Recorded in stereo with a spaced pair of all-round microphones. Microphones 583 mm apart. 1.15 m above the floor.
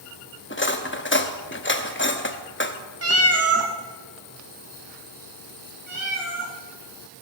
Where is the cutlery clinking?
20° left (ahead or behind), 0.8 m.